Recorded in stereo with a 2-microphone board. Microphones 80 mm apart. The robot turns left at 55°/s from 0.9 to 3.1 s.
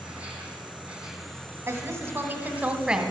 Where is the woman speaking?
90° right, 1.1 m; by 3.1 s 170° right, 1.1 m.